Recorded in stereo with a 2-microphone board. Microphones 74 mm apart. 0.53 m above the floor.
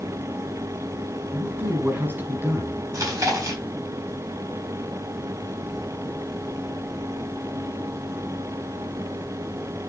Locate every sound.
1.3 s a man speaking: 30° right (ahead or behind), 4 m
2.9 s chewing: 50° right (ahead or behind), 4.5 m